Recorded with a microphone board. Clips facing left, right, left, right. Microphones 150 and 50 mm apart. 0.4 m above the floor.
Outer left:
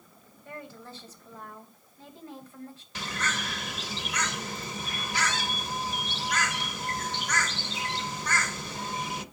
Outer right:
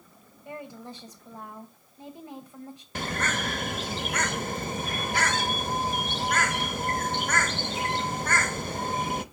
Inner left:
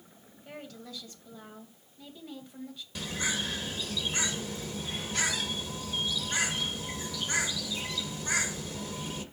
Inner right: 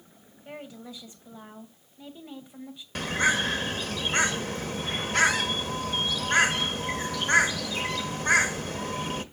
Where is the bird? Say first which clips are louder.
Outer right 4 dB, inner right 9 dB; 50° right (ahead or behind), 0.8 m.